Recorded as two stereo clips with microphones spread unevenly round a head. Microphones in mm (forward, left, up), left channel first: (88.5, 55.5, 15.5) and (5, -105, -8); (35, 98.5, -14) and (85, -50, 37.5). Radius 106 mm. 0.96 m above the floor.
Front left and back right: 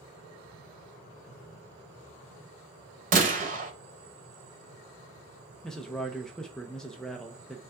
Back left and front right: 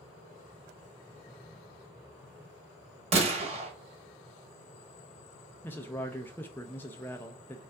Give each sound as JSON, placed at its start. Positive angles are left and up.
{"t": 3.1, "sound": "a gunshot", "azimuth_deg": -75, "distance_m": 1.0}
{"t": 5.6, "sound": "a man speaking", "azimuth_deg": 155, "distance_m": 0.5}